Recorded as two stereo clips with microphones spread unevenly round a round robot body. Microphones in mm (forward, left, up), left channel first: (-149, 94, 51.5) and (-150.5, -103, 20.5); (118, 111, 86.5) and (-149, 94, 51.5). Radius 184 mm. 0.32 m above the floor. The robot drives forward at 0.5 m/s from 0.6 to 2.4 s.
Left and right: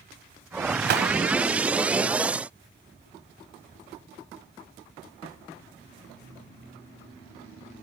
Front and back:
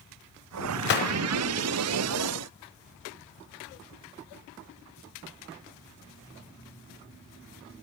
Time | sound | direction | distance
0.8 | a gunshot | 50° right | 0.5 m